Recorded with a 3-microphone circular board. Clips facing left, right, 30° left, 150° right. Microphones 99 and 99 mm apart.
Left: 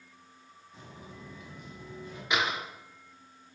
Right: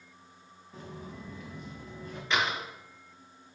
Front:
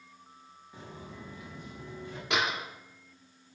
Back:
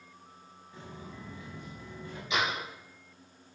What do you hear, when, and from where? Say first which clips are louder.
0.7 s footsteps: right 5 dB, even; 45° right, 3.5 m
2.3 s a door slam: even, front 1 dB; 10° left, 3 m